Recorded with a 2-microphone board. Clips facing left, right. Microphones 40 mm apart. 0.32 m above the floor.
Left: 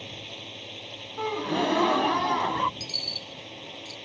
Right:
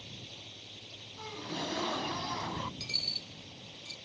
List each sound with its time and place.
0.0 s a drone: 55° left (ahead or behind)
1.2 s a gasp: 60° left (ahead or behind)
2.8 s a dropped coin: 30° right (ahead or behind)